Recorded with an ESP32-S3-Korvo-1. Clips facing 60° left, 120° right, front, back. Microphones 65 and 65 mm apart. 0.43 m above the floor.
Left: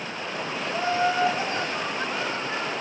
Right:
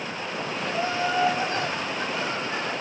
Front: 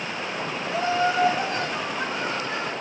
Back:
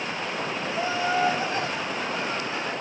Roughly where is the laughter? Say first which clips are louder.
Left 2 dB, front 4 dB; ahead.